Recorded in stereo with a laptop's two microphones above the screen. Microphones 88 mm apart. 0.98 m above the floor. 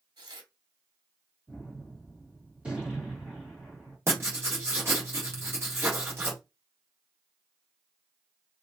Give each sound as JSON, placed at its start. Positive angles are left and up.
{"t": 0.2, "sound": "tearing paper", "side_deg": -70, "distance_m": 1.5}
{"t": 1.5, "sound": "a gunshot", "side_deg": -15, "distance_m": 1.9}
{"t": 4.1, "sound": "writing", "side_deg": -30, "distance_m": 1.3}